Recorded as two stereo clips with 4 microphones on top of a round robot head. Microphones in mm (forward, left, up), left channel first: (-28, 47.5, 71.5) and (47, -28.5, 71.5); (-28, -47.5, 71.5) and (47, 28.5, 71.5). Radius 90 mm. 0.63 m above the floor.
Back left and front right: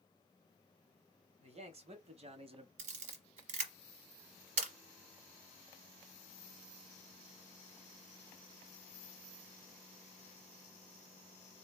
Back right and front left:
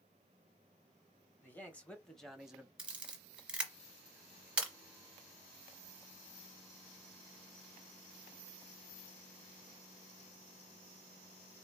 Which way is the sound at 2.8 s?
35° right.